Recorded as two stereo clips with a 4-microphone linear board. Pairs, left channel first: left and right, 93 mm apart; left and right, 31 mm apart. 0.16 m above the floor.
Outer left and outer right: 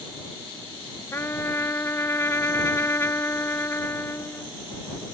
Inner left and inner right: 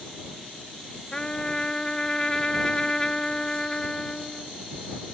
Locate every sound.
1.1 s a trumpet: 25° left (ahead or behind)